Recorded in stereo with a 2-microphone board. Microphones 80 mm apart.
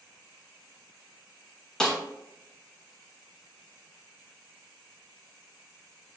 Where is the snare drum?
10° left (ahead or behind), 1.0 m.